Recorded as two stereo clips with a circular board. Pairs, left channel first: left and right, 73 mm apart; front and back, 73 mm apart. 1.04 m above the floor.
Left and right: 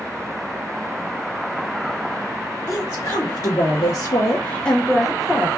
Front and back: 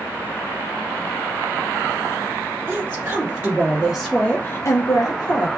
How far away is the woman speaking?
About 1.3 m.